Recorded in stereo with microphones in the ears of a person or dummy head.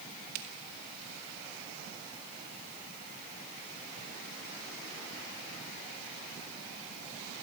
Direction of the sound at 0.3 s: 65° right (ahead or behind).